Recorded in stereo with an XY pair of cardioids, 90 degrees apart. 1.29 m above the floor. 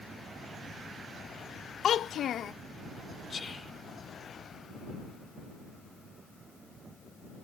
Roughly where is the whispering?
Ahead left.